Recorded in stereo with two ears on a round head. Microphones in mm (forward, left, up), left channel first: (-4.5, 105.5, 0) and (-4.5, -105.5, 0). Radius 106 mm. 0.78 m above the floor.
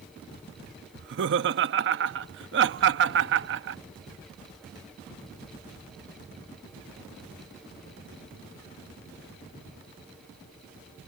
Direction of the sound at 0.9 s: 50° right (ahead or behind).